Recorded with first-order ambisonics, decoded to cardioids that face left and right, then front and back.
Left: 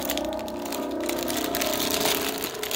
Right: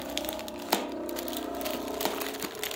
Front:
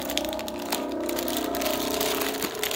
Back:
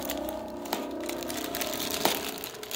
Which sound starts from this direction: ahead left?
A helicopter, at 0.0 s.